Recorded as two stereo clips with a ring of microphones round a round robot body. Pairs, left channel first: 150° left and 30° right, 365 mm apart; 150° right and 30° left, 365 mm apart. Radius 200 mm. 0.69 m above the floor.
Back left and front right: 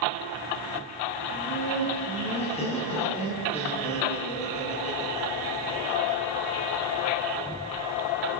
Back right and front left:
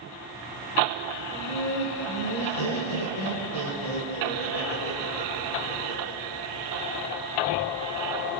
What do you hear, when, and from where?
1.3 s laughter: 135° right, 9 m